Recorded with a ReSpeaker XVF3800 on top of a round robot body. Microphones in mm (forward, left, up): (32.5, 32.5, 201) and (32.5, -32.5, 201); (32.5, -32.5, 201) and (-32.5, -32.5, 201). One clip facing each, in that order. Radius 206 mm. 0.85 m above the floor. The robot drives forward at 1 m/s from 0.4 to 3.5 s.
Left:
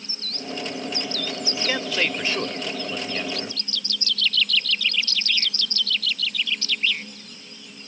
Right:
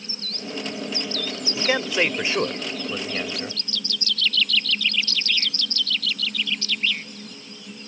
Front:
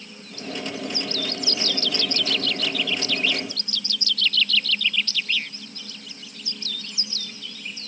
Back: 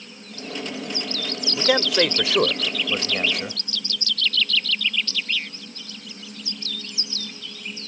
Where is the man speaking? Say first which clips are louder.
Right 4 dB, back 13 dB; 160° right; by 3.6 s 170° right.